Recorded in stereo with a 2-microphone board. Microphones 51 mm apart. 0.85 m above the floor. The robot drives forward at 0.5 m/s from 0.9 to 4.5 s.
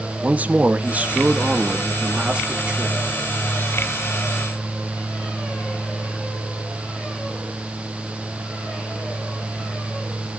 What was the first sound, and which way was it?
A man speaking, 25° right (ahead or behind).